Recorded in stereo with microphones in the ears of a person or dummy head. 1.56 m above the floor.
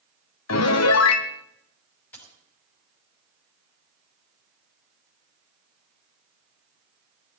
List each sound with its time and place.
0.5 s a piano: 80° left, 0.9 m
2.1 s a dropped coin: 10° left (ahead or behind), 5.5 m